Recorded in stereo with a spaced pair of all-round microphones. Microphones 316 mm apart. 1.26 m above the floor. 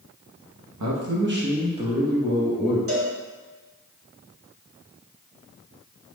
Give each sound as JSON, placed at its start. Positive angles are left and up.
{"t": 0.8, "sound": "a man speaking", "side_deg": -65, "distance_m": 0.8}
{"t": 2.9, "sound": "a cowbell", "side_deg": -45, "distance_m": 1.0}